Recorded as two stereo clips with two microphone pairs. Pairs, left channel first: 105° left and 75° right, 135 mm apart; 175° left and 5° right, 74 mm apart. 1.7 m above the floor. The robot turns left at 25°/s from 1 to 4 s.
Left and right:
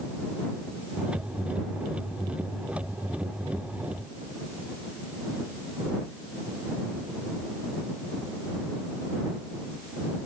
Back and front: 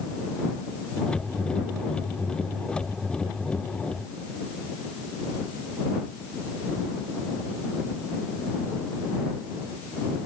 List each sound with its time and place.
Only background noise.